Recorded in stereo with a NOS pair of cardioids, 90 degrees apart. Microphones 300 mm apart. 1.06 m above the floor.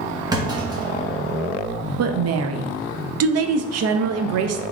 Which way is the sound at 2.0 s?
55° right.